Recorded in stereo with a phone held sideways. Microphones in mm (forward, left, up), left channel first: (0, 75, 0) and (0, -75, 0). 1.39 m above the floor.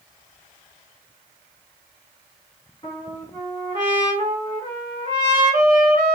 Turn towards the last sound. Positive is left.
turn(degrees=25)  # may be behind; listen again after turning